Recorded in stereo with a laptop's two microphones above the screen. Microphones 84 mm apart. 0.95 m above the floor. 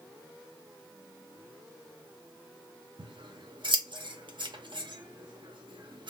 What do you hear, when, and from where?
3.0 s scissors: 65° right (ahead or behind), 0.6 m